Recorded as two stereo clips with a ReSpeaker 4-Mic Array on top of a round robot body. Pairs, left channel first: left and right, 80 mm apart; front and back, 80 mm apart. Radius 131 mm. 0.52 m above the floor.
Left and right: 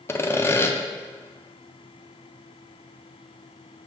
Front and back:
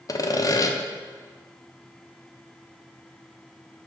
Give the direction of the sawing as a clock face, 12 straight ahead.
11 o'clock.